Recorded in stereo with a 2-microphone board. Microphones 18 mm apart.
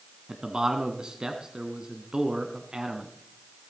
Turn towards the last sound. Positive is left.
turn(degrees=-45)  # may be behind; listen again after turning